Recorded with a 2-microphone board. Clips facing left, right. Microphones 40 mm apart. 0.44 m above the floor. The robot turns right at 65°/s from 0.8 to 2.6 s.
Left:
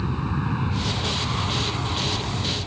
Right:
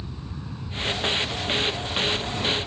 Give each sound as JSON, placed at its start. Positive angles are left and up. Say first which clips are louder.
{"t": 0.0, "sound": "an aircraft", "louder": "left 11 dB", "side_deg": 55}